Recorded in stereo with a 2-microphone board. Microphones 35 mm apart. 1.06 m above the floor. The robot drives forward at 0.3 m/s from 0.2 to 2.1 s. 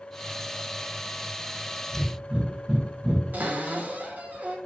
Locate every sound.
1.9 s breathing: 30° right (ahead or behind), 0.6 m; by 3.2 s 35° right (ahead or behind), 0.6 m
3.3 s a cupboard door: 55° right (ahead or behind), 0.9 m